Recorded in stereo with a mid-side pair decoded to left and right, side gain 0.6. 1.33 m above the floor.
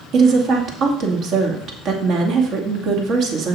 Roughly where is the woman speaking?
Ahead right.